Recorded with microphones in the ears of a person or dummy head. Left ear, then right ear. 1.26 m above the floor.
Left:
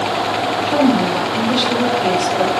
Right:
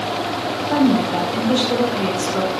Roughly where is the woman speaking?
Right.